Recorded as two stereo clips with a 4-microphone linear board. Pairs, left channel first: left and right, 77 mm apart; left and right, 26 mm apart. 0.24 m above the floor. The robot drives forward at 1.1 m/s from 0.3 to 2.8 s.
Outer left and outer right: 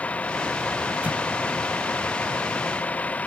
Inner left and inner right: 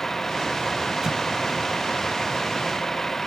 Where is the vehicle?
15° left (ahead or behind); by 3.3 s 20° left (ahead or behind).